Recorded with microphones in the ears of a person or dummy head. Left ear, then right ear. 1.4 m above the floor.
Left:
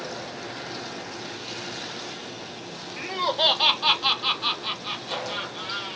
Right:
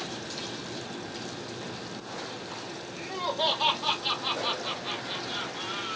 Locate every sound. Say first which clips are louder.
3.0 s laughter: left 6 dB; 45° left (ahead or behind), 0.8 m; by 6.0 s 20° left (ahead or behind), 1.8 m